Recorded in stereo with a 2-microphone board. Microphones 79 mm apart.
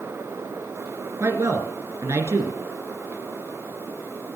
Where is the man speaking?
35° right (ahead or behind), 2 m.